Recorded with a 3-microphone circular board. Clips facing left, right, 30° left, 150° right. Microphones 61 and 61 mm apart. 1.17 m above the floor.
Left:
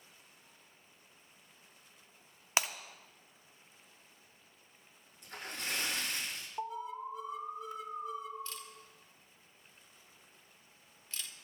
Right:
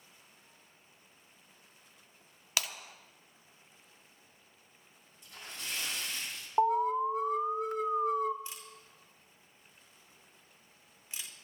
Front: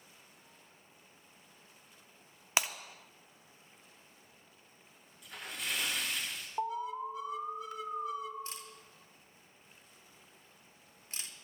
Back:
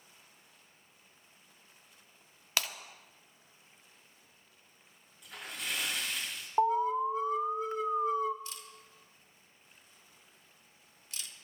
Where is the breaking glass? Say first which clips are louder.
Left 3 dB, front 2 dB; 70° left, 0.7 m.